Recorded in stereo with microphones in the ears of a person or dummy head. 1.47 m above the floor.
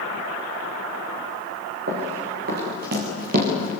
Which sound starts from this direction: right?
Running footsteps, at 1.9 s.